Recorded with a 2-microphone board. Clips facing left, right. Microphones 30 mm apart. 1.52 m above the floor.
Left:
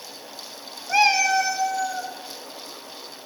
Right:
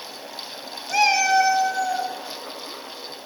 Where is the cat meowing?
20° left (ahead or behind), 0.8 m; by 2.1 s 45° right (ahead or behind), 1.4 m.